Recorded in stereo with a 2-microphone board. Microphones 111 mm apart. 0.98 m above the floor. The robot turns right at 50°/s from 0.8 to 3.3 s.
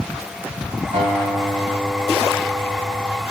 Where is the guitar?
95° right, 5.5 m; by 3.2 s 20° left, 5.5 m.